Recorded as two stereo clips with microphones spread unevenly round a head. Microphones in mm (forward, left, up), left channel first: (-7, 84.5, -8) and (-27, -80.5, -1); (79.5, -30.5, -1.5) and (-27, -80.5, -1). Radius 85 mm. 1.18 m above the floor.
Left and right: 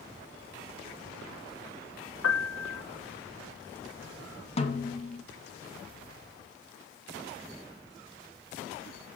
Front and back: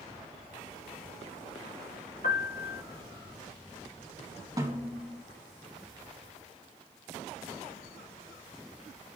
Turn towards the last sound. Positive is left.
turn(degrees=135)